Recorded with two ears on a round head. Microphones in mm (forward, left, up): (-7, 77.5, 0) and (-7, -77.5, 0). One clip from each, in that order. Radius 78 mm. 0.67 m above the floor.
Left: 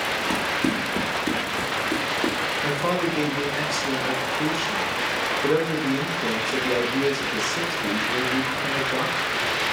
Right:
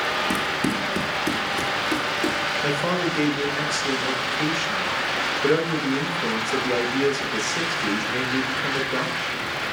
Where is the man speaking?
15° right (ahead or behind), 0.6 m.